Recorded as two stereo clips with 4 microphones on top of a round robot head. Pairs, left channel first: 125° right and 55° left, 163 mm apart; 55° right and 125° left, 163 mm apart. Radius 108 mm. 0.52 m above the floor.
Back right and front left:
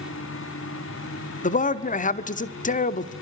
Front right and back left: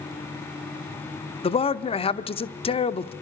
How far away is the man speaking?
About 1.2 m.